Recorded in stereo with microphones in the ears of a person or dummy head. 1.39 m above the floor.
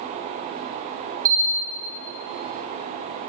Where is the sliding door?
No sliding door in this recording.